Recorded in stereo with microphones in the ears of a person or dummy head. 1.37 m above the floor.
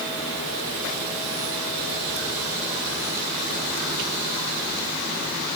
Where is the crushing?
No crushing in this recording.